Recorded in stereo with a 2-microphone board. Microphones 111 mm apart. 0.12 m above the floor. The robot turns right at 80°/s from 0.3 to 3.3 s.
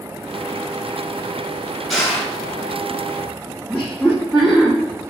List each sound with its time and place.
1.9 s crushing: 90° left, 1.5 m; by 2.3 s 120° left, 1.5 m
3.7 s laughter: centre (ahead or behind), 1.1 m